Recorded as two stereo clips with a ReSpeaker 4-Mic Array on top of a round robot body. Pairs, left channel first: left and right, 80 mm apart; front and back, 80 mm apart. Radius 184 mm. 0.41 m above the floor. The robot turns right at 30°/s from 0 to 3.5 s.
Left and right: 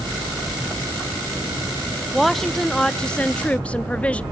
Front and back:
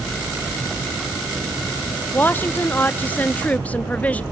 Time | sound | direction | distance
2.1 | a woman speaking | straight ahead | 0.8 m